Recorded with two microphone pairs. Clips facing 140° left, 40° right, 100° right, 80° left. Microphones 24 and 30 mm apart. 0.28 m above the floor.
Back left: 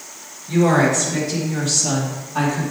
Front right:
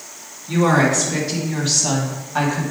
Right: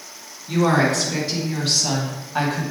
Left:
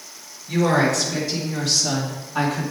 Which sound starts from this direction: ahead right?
A woman speaking, at 0.5 s.